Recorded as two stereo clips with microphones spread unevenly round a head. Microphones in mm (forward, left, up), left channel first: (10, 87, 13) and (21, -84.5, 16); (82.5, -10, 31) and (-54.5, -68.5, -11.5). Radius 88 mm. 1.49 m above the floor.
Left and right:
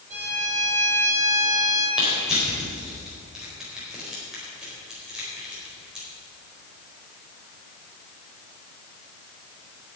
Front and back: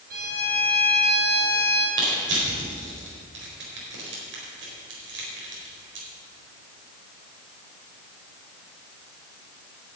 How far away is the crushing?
About 4 m.